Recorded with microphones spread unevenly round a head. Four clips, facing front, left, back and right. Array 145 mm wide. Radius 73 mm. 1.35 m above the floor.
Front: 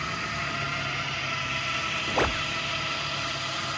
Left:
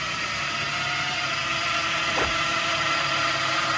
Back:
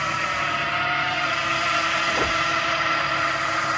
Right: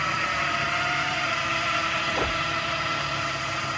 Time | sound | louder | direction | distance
0.0 | a drone | right 4 dB, back 7 dB | 160° right | ?